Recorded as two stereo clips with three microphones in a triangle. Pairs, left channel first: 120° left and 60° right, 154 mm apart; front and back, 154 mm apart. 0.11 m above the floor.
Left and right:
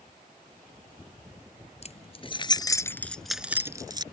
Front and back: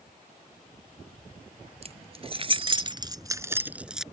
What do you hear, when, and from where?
1.8 s keys jangling: 145° left; by 4.0 s 95° right